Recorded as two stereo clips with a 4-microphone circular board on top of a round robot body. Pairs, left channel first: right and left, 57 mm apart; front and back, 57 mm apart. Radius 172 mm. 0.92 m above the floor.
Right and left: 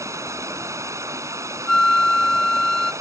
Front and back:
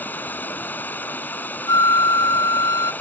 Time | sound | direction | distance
0.0 | running water | 60° left | ?
1.7 | a flute | 10° right | ?